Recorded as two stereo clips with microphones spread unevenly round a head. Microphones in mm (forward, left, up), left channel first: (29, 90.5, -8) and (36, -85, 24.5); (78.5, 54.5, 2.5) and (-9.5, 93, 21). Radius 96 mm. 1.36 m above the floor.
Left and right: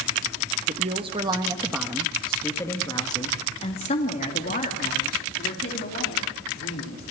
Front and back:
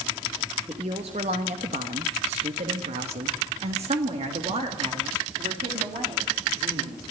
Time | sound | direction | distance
0.7 | a woman speaking | 145° right | 1.4 m